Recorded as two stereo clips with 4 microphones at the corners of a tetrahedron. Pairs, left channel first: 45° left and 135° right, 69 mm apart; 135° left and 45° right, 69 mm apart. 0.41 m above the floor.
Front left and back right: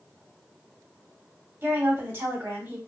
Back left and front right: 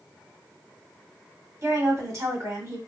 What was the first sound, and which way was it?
A woman speaking, 75° right.